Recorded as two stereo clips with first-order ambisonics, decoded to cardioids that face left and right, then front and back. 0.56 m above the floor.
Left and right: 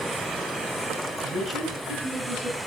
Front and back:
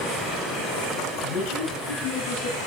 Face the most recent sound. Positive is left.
turn(degrees=-15)